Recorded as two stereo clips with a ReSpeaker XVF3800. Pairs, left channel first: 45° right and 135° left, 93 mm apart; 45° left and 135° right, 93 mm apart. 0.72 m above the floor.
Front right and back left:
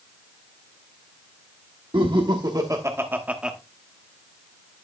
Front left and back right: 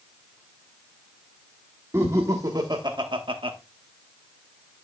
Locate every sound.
1.9 s laughter: 165° left, 1.3 m; by 3.6 s 140° right, 1.1 m